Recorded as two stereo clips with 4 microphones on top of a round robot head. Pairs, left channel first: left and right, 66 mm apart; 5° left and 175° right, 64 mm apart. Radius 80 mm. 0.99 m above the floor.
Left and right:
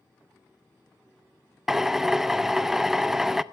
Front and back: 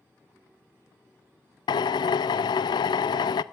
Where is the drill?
5° right, 0.6 m.